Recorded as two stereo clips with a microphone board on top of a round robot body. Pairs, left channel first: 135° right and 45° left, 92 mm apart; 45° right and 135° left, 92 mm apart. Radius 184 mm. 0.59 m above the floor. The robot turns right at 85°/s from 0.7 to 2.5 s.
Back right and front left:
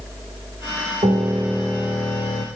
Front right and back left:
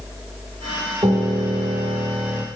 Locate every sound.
1.0 s a piano: 80° left, 0.8 m; by 2.5 s 155° right, 0.8 m